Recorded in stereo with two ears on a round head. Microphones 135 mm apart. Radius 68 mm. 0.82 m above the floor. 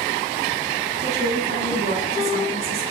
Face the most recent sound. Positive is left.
turn(degrees=-40)  # may be behind; listen again after turning